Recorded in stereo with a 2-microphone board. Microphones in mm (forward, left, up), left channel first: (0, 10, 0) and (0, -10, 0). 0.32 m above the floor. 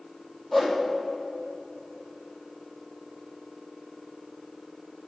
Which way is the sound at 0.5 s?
5° right (ahead or behind).